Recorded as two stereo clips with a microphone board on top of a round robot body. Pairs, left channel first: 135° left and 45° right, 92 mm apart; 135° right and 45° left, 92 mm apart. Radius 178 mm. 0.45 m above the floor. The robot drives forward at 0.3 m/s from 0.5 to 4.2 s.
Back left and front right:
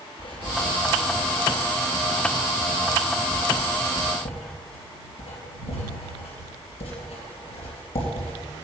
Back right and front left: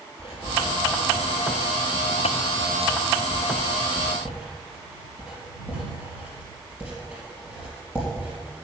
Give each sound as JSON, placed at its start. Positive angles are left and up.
{"t": 0.2, "sound": "writing", "azimuth_deg": 100, "distance_m": 3.0}